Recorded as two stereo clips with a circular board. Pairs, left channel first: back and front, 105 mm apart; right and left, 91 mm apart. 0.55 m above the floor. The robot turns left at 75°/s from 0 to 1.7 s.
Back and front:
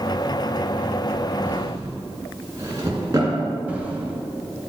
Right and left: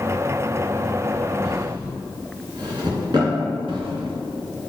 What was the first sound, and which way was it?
A drawer, 75° left.